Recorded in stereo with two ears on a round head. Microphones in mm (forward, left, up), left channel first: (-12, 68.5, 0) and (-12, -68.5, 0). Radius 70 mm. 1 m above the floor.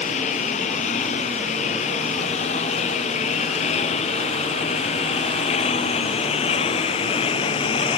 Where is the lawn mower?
45° left (ahead or behind); by 8.0 s 35° left (ahead or behind).